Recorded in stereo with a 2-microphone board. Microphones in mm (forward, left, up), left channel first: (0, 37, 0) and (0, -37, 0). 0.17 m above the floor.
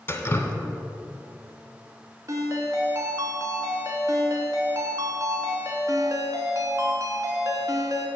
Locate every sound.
0.1 s dripping: 35° left (ahead or behind), 0.7 m
2.3 s a ringtone: 45° right (ahead or behind), 1.0 m